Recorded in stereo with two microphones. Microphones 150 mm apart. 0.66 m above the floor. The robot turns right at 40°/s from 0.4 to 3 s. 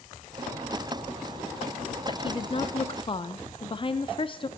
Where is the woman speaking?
70° left, 0.6 m; by 4.5 s 105° left, 0.6 m.